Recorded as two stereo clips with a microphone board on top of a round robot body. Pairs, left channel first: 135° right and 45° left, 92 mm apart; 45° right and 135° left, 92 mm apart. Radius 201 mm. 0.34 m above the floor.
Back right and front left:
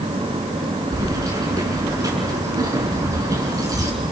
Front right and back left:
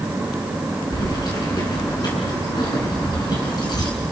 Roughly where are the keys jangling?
Ahead.